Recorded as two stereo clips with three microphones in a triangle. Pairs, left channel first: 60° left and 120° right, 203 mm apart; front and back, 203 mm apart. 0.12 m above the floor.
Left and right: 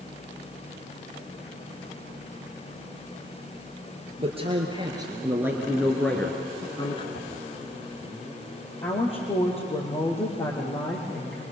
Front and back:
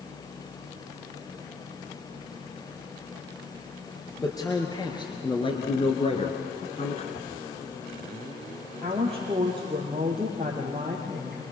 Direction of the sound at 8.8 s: 115° left.